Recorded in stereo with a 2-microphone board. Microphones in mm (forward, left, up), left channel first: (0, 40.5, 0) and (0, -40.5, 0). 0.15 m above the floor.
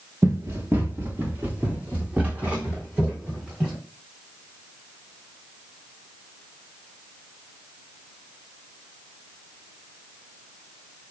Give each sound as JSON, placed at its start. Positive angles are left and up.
{"t": 0.2, "sound": "running footsteps", "side_deg": -35, "distance_m": 1.1}